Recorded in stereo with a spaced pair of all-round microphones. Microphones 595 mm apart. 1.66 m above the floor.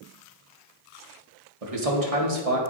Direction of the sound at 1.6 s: 70° right (ahead or behind).